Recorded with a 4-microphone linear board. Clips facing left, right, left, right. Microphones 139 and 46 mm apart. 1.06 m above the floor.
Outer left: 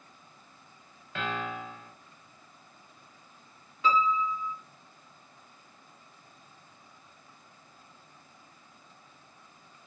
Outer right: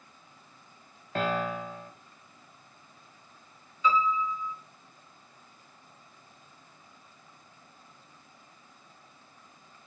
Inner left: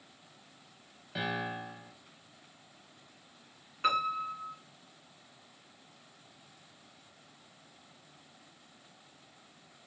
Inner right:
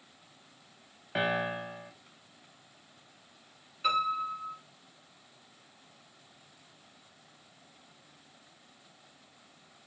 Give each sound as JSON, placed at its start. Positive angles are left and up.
{"t": 1.1, "sound": "a piano", "side_deg": -40, "distance_m": 0.7}
{"t": 3.8, "sound": "a piano", "side_deg": 65, "distance_m": 3.5}